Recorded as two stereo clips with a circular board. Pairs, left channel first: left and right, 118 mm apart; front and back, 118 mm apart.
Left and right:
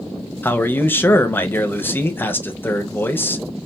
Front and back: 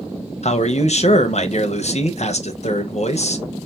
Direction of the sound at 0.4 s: 20° left.